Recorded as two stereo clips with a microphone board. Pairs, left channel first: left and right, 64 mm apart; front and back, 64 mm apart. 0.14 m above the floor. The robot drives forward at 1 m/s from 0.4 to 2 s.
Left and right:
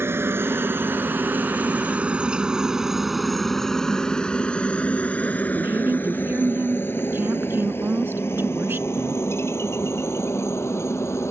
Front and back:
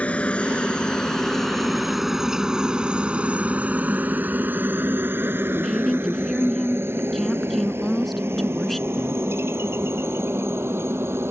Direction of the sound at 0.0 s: 60° right.